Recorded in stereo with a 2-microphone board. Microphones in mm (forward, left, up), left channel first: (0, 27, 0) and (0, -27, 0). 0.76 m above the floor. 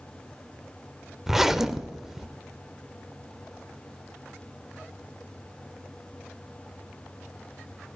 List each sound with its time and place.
1.3 s a zipper: 5° right (ahead or behind), 0.6 m